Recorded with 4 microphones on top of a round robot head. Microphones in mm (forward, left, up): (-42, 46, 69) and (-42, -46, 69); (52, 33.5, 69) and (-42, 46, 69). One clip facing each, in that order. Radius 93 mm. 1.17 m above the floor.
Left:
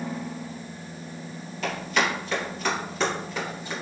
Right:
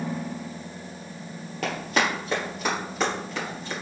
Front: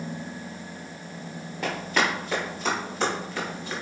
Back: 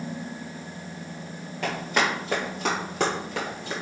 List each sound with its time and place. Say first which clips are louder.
1.6 s running footsteps: even, even; 90° right, 1.4 m; by 3.7 s 170° left, 1.6 m